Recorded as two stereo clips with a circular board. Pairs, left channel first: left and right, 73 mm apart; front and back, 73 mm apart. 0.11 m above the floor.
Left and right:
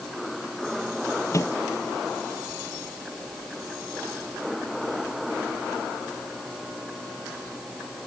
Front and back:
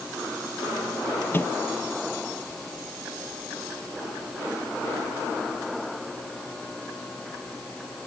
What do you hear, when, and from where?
1.3 s a microwave: 55° left